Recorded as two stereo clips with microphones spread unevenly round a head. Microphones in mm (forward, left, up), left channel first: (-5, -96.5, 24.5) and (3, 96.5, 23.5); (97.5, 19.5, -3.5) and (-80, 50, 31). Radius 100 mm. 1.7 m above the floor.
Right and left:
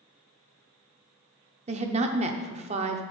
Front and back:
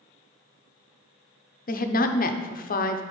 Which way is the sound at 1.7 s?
35° left.